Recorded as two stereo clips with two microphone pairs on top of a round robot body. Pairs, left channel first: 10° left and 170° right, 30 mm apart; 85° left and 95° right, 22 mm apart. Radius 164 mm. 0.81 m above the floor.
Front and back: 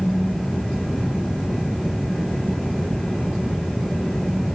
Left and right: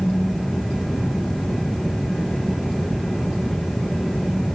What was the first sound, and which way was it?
Only background noise.